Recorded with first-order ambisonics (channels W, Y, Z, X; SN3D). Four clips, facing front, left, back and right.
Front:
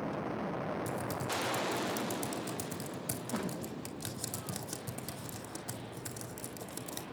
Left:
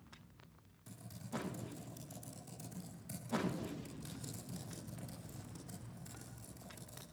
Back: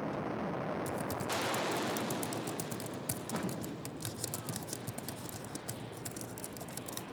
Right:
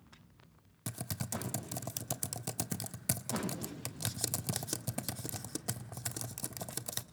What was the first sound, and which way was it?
Typing on a keyboard, 90° right.